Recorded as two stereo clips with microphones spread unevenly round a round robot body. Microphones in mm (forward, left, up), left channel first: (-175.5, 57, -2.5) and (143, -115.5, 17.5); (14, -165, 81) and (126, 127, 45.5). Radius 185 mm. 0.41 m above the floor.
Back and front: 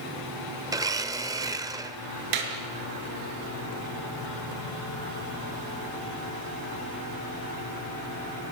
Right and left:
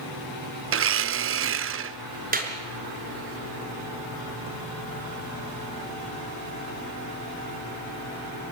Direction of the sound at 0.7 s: 50° left.